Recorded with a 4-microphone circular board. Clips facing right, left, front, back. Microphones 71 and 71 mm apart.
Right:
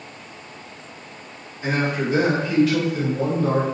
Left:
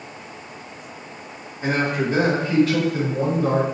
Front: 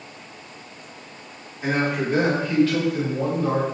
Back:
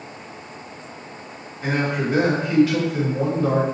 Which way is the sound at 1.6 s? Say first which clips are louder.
Left 1 dB, even; 75° left.